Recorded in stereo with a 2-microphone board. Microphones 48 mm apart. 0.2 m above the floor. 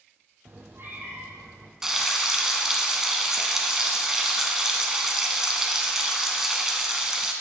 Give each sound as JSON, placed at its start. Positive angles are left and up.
{"t": 0.5, "sound": "a cat meowing", "side_deg": -55, "distance_m": 2.0}
{"t": 1.8, "sound": "frying", "side_deg": -10, "distance_m": 1.1}